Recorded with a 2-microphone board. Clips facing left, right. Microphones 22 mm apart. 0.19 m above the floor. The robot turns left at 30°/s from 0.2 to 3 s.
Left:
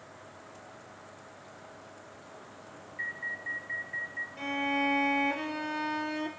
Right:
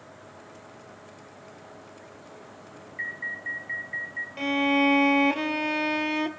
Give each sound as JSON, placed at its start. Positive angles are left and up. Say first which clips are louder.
{"t": 3.0, "sound": "an alarm", "louder": "right 3 dB", "side_deg": -30, "distance_m": 1.8}
{"t": 4.4, "sound": "a violin", "louder": "right 8 dB", "side_deg": -45, "distance_m": 0.7}